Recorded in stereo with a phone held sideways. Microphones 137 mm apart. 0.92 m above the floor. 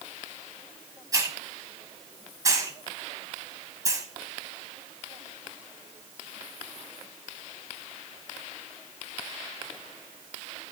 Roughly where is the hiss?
Right.